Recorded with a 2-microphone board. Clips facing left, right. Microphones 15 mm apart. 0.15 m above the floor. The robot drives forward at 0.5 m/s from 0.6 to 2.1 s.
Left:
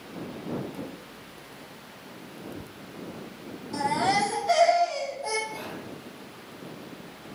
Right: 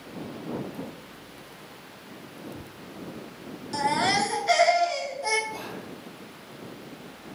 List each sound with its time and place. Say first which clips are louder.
0.7 s a drawer: even; 25° left (ahead or behind), 0.6 m; by 2.7 s 15° left (ahead or behind), 1.0 m
3.7 s a baby crying: right 1 dB; 40° right (ahead or behind), 0.8 m
5.5 s whispering: right 1 dB; 20° right (ahead or behind), 1.4 m